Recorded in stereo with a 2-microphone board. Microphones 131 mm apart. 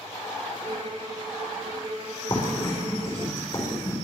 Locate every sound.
0.6 s a violin: 45° right (ahead or behind), 1.4 m
2.3 s writing: 40° left (ahead or behind), 5 m